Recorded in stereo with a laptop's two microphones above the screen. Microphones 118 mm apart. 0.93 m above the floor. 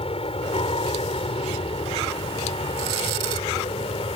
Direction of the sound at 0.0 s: 55° left (ahead or behind).